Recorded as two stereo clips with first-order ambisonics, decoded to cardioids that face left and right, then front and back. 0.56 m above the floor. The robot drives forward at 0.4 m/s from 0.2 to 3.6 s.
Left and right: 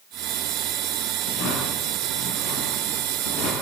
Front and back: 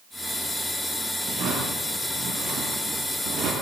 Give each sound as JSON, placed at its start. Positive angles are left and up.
{"t": 1.2, "sound": "a drawer", "azimuth_deg": 120, "distance_m": 8.5}